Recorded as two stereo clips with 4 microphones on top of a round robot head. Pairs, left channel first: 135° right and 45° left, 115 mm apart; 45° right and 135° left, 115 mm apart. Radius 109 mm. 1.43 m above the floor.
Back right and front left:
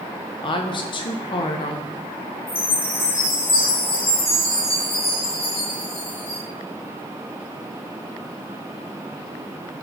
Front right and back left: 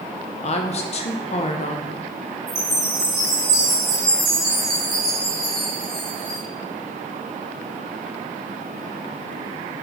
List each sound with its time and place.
0.4 s a woman speaking: 80° right, 0.8 m
2.5 s a chime: 170° right, 4 m